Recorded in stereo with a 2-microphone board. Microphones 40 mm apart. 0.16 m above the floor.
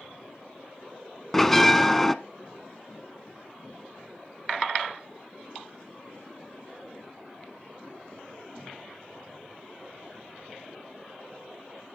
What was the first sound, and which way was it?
A bell, 5° left (ahead or behind).